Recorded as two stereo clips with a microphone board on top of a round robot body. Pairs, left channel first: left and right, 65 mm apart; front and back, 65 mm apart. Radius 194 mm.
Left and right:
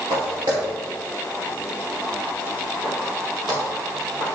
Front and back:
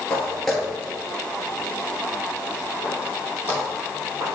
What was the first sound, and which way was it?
Footsteps, 75° right.